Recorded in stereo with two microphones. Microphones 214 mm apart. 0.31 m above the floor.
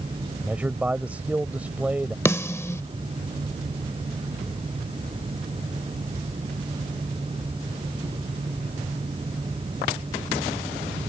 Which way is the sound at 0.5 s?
5° right (ahead or behind).